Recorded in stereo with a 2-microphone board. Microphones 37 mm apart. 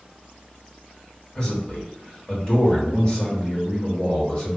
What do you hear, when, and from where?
1.4 s a man speaking: 25° left (ahead or behind), 1.4 m